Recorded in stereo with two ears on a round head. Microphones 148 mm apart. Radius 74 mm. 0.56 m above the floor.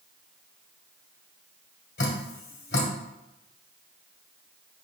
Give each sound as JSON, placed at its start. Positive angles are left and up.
{"t": 2.0, "sound": "dripping", "side_deg": 60, "distance_m": 1.6}